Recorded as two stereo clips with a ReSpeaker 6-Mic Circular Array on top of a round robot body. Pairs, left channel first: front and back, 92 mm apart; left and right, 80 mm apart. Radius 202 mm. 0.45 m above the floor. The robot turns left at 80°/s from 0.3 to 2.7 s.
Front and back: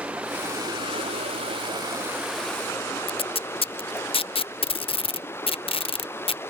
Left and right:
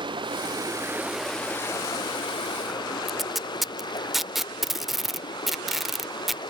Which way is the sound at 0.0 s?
105° right.